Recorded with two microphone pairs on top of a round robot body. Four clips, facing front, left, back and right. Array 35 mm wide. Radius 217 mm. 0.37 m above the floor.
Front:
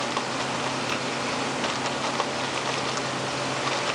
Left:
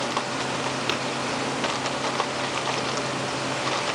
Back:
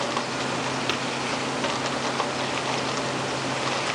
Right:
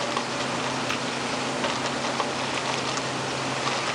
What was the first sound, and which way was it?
Tapping, 130° left.